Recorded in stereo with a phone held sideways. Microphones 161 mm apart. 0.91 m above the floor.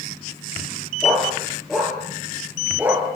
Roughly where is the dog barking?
Centre.